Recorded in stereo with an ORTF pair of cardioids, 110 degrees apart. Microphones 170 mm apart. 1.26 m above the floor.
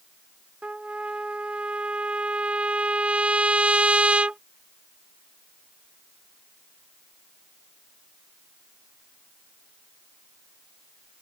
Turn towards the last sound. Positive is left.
turn(degrees=-5)